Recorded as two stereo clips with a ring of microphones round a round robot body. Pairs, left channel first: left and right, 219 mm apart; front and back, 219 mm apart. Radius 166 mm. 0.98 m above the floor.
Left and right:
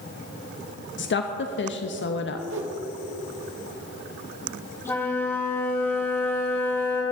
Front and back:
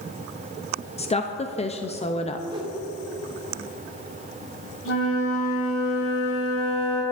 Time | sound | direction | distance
1.0 | a woman speaking | 60° left | 1.0 m
2.5 | a whoosh | 110° right | 1.4 m
4.8 | a flute | 10° left | 3.5 m